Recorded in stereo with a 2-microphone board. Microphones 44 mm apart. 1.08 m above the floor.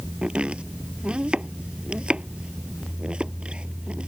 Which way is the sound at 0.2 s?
25° right (ahead or behind).